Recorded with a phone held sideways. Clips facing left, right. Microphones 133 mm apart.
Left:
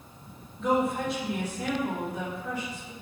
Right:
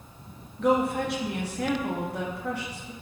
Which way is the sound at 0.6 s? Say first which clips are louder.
Right 2 dB; 70° right (ahead or behind).